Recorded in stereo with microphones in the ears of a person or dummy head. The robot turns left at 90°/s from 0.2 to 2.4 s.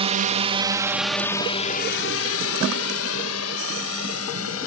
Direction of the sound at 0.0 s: 30° right (ahead or behind).